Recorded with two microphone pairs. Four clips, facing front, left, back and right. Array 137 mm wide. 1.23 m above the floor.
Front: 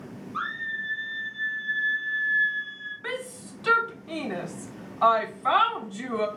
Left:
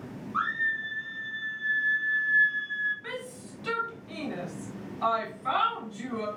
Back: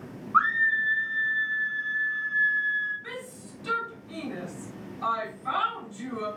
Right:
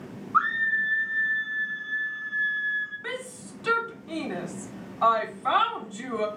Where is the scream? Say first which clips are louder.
Right 6 dB, back 10 dB; 150° right, 1.4 m.